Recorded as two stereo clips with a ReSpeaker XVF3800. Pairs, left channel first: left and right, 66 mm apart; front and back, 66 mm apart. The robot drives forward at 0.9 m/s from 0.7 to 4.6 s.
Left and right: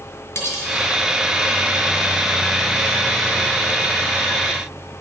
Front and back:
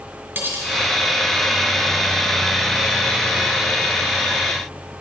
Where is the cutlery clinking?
125° left, 2 m.